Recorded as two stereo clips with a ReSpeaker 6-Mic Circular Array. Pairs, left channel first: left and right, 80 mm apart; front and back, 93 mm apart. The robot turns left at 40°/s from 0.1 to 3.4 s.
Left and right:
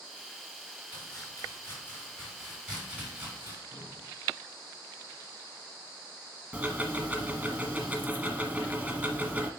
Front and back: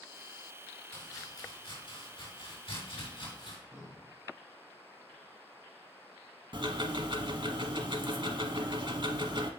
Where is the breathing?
160° right, 1.6 m.